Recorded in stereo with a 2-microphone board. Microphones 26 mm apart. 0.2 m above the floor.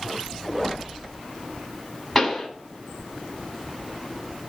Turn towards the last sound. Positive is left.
turn(degrees=15)  # may be behind; listen again after turning